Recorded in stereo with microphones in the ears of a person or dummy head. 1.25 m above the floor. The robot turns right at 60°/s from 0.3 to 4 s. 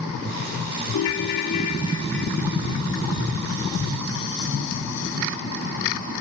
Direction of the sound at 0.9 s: 95° left.